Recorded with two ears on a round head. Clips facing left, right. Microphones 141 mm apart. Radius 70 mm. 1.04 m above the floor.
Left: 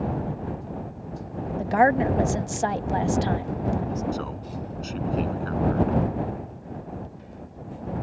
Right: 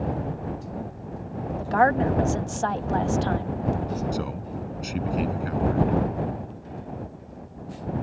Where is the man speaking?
15° right (ahead or behind).